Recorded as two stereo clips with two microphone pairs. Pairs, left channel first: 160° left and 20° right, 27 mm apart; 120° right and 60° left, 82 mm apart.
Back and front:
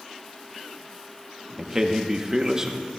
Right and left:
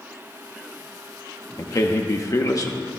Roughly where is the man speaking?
Right.